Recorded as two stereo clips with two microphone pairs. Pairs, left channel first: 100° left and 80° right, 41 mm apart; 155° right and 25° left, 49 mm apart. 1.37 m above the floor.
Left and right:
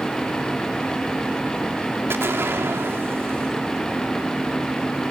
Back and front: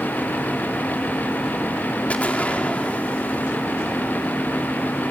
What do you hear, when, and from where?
2.1 s an explosion: 95° right, 2 m